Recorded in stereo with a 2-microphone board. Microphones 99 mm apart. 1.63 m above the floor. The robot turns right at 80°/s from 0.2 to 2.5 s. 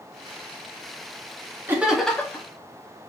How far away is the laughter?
About 0.7 m.